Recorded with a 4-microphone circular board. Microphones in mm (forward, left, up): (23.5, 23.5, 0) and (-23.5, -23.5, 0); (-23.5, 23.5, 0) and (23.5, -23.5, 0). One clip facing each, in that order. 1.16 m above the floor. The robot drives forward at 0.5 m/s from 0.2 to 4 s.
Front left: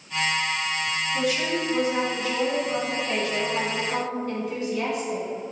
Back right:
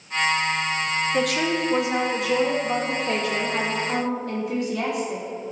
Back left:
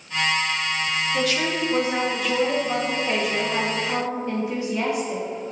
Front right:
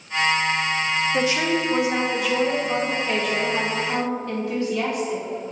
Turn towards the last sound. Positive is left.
turn(degrees=-150)